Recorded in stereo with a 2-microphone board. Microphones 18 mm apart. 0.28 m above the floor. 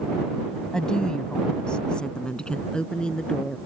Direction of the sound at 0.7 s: 45° left (ahead or behind).